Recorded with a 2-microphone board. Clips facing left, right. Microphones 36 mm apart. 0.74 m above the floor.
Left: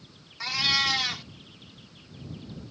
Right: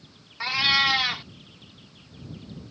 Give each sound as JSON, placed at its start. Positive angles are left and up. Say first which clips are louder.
{"t": 0.4, "sound": "a cat meowing", "louder": "right 4 dB", "side_deg": -20}